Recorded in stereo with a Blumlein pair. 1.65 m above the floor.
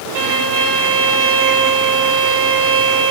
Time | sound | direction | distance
0.1 | a violin | 50° right | 4 m